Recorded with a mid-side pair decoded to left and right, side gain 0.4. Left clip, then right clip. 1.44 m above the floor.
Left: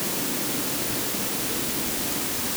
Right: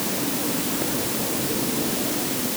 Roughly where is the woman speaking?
I don't hear a woman speaking.